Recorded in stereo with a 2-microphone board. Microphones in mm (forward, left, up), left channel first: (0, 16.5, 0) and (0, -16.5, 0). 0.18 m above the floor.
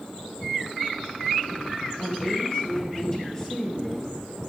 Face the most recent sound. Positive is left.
turn(degrees=10)  # may be behind; listen again after turning